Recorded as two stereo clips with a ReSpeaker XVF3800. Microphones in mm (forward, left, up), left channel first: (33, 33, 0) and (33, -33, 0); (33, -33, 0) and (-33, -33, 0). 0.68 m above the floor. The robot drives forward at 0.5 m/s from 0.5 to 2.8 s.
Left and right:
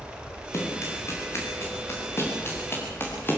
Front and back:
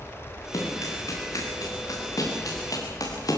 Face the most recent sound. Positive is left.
turn(degrees=30)